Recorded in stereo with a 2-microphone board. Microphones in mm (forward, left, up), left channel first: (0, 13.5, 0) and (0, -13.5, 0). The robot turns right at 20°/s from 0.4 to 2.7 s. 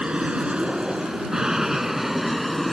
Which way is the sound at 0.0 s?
45° right (ahead or behind).